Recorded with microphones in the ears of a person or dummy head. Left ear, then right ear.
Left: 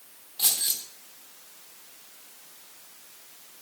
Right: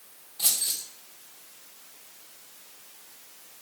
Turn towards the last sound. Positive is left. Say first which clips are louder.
# left 1 dB
turn(degrees=30)  # may be behind; listen again after turning